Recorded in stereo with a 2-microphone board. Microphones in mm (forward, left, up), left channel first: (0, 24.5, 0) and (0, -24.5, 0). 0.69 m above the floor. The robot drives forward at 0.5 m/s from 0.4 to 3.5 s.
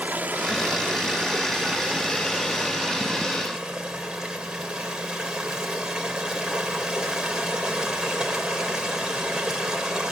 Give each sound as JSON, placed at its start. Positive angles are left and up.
{"t": 0.0, "sound": "running water", "side_deg": -40, "distance_m": 1.1}